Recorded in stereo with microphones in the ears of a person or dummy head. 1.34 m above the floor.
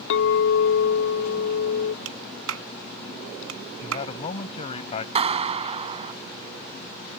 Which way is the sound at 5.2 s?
30° right (ahead or behind).